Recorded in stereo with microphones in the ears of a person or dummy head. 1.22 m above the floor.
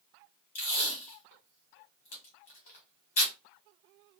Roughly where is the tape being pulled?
Left.